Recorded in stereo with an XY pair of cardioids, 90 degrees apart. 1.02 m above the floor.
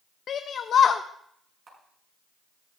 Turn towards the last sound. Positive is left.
turn(degrees=-50)